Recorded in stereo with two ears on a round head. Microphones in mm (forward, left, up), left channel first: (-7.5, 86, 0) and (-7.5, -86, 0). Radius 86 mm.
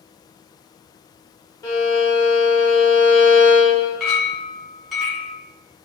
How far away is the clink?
About 0.9 m.